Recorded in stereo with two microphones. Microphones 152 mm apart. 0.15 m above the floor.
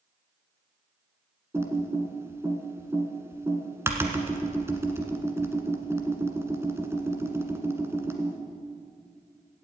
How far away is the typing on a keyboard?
About 1.6 m.